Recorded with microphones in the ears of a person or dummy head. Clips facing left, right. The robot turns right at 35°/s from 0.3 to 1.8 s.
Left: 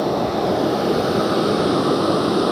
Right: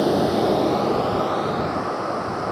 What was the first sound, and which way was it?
A vehicle, 5° right.